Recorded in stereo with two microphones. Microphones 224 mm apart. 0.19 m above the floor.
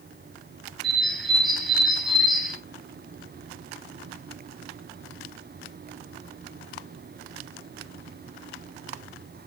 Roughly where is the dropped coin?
No dropped coin in this recording.